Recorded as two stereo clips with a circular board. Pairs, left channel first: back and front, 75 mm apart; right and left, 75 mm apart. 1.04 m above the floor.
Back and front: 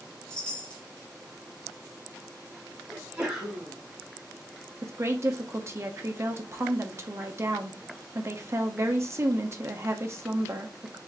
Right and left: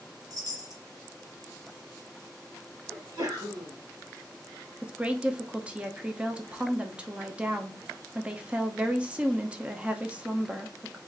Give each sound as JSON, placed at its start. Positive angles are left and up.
{"t": 0.3, "sound": "a chime", "azimuth_deg": 105, "distance_m": 1.0}
{"t": 2.9, "sound": "a sneeze", "azimuth_deg": 80, "distance_m": 1.8}
{"t": 4.8, "sound": "a woman speaking", "azimuth_deg": 25, "distance_m": 0.8}